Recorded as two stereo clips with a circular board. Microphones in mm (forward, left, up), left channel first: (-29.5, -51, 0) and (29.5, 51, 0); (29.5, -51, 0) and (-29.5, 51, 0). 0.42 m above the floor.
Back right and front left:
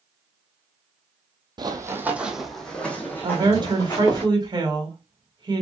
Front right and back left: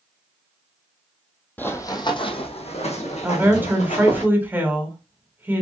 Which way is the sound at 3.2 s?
55° left.